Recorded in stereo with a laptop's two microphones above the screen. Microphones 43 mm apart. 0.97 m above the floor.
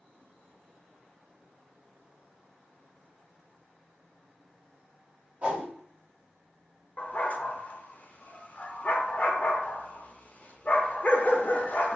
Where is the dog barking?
35° left (ahead or behind), 0.7 m.